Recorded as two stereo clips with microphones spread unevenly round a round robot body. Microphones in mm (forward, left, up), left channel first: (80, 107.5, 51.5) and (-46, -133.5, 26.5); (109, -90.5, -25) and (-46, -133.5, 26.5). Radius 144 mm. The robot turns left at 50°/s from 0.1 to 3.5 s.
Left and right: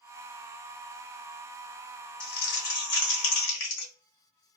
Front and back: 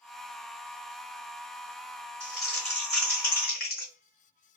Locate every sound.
2.2 s crumpling: 100° left, 1.2 m; by 3.9 s 35° left, 1.2 m